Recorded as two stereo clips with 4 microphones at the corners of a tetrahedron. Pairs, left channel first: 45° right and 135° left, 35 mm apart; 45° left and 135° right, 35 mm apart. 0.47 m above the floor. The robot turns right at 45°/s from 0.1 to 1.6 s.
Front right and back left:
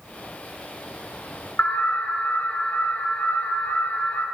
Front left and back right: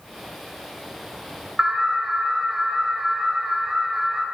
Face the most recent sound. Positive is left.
turn(degrees=-65)